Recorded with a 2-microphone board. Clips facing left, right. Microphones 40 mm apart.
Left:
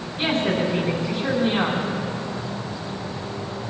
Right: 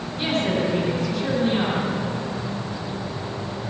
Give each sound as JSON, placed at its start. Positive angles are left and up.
{"t": 0.2, "sound": "a woman speaking", "side_deg": 30, "distance_m": 4.5}